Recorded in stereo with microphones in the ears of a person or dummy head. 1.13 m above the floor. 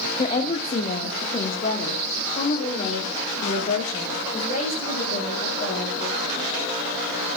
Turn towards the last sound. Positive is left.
turn(degrees=35)  # may be behind; listen again after turning